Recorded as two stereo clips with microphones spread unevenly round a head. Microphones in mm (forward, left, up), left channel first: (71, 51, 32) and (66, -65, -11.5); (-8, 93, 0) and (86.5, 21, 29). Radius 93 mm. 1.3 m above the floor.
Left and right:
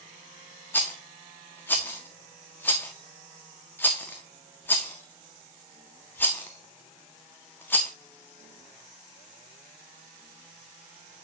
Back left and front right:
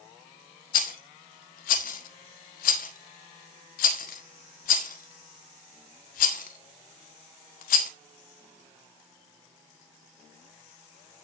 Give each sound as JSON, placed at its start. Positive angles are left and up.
{"t": 0.7, "sound": "a rattle", "azimuth_deg": 155, "distance_m": 1.1}